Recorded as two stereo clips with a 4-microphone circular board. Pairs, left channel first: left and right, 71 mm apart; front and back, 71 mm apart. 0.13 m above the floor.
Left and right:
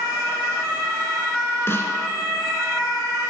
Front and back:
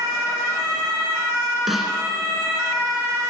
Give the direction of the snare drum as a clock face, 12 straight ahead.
9 o'clock.